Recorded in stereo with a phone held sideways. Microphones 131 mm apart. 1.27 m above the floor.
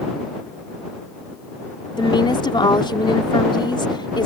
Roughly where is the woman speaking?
Left.